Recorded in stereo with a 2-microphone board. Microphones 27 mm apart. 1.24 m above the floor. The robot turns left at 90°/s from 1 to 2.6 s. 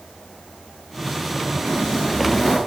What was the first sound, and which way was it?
Footsteps, 145° right.